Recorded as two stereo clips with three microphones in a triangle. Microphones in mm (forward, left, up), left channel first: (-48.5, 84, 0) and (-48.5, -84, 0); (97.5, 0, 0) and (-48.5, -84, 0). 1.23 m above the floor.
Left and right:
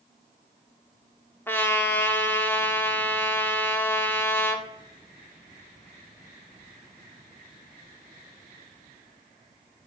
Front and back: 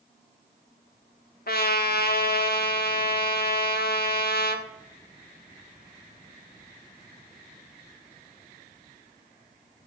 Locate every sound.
1.5 s a trumpet: 15° left, 1.5 m